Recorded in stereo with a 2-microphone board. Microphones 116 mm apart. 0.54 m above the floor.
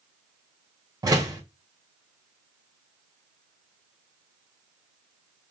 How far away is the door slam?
About 1.9 m.